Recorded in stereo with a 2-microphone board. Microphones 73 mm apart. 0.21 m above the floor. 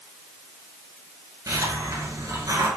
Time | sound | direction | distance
1.5 | a hiss | 45° right (ahead or behind) | 2 m